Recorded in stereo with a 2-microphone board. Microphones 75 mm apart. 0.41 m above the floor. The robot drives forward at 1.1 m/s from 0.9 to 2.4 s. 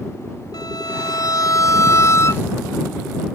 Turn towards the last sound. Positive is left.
turn(degrees=35)  # may be behind; listen again after turning